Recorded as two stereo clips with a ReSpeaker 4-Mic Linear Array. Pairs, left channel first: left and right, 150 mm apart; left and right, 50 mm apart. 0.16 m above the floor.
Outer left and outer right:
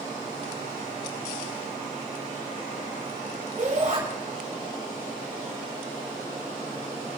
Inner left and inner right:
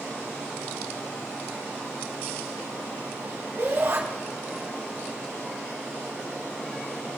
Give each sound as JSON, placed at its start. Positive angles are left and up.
{"t": 3.6, "sound": "a shout", "side_deg": -55, "distance_m": 4.5}